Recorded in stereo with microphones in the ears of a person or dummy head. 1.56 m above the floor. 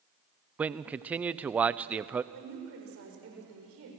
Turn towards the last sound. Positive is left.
turn(degrees=-70)  # may be behind; listen again after turning